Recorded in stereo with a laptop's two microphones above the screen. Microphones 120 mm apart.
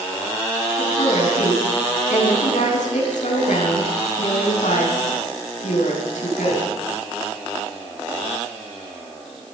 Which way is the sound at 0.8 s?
85° left.